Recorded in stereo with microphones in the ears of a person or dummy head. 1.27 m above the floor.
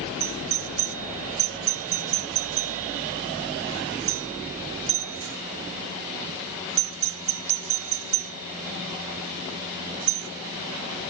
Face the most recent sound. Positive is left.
turn(degrees=-65)  # may be behind; listen again after turning